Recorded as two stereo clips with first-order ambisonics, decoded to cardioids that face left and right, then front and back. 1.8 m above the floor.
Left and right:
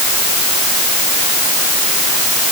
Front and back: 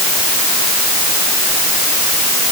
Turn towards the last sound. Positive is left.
No sound to turn to.